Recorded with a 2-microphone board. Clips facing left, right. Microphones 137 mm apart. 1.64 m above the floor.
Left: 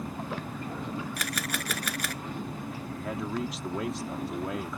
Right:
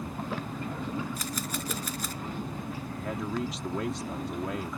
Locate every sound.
1.2 s a camera shutter: 75° left (ahead or behind)
3.0 s a man speaking: centre (ahead or behind)